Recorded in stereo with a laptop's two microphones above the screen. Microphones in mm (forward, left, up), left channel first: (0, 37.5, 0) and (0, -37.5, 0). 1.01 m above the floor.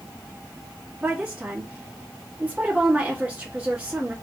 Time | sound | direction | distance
1.0 | a woman speaking | 20° right (ahead or behind) | 1.5 m